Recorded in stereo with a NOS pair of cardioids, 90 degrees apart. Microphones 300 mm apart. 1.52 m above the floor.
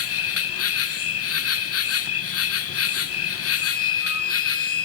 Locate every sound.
0.0 s an insect: 55° left, 1.1 m
3.6 s a flute: 50° left, 2.5 m